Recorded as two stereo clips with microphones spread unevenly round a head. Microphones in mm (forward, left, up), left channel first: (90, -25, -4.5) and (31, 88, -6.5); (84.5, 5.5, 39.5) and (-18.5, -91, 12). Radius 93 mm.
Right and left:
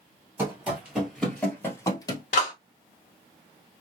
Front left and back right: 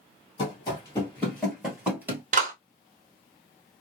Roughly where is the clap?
Right.